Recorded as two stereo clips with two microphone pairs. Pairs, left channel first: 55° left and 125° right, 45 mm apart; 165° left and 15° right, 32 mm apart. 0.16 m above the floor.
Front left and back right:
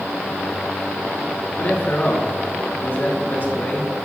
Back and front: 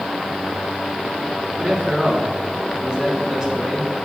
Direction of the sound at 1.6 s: 30° left.